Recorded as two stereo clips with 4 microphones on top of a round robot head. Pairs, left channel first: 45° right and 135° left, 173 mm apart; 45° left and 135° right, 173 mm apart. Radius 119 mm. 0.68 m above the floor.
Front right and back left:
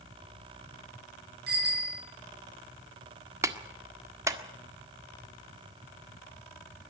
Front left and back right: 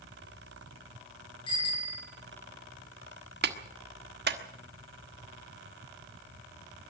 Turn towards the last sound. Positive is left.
turn(degrees=-150)